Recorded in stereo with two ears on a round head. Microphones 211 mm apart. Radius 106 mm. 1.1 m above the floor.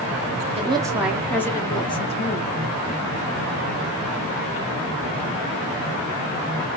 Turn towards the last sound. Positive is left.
turn(degrees=30)  # may be behind; listen again after turning